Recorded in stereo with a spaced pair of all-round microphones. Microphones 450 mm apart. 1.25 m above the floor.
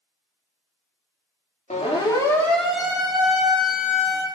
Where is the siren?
15° left (ahead or behind), 3.5 m; by 4.3 s 30° right (ahead or behind), 3 m.